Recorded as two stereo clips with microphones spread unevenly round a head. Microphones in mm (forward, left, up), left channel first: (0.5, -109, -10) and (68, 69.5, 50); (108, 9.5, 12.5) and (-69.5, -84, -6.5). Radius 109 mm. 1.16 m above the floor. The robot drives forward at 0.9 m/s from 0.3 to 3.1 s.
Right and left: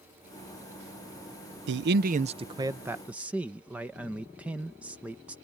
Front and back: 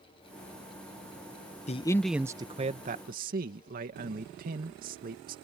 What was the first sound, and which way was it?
A man speaking, 75° left.